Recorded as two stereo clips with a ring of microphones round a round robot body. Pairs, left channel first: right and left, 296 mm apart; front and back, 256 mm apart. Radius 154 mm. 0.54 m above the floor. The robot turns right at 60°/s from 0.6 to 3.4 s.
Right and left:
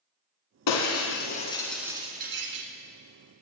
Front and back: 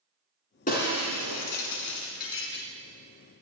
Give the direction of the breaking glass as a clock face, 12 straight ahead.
2 o'clock.